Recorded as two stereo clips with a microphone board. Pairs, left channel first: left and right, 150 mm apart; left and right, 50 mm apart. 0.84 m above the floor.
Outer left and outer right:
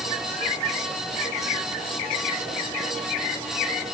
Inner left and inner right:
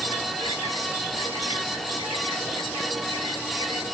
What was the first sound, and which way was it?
Only background noise.